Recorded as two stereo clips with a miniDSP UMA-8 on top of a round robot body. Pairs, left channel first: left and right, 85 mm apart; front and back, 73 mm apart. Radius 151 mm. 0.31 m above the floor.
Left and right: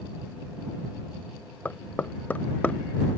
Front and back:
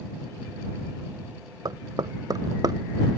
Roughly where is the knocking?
Behind.